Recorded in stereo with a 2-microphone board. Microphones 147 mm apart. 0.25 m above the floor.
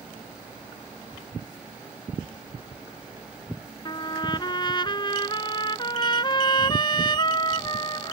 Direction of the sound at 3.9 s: 30° left (ahead or behind).